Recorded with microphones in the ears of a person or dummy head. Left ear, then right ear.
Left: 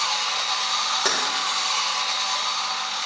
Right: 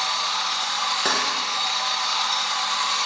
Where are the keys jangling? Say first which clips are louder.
Right 1 dB; 10° left (ahead or behind), 1.3 m.